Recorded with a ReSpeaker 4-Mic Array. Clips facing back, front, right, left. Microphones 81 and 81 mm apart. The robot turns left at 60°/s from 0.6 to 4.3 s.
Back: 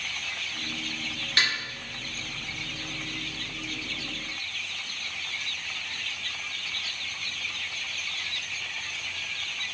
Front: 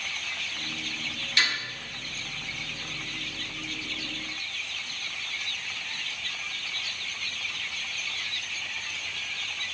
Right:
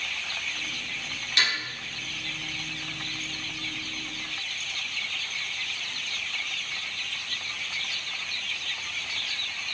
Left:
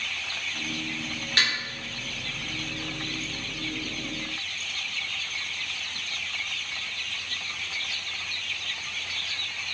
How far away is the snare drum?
About 1.7 m.